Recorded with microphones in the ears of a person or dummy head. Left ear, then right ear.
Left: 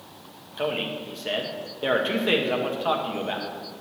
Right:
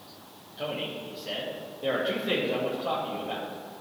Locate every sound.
0.6 s a man speaking: 45° left (ahead or behind), 1.8 m